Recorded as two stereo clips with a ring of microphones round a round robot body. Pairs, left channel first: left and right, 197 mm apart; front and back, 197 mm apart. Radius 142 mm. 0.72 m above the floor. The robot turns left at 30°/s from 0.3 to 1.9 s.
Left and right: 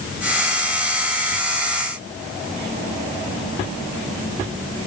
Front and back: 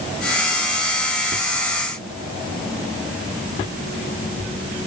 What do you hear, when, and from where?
Only background noise.